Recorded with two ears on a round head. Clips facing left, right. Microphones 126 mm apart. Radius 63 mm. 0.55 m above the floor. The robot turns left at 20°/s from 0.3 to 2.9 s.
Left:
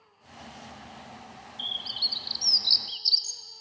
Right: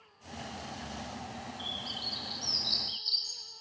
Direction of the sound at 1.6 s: 30° left (ahead or behind).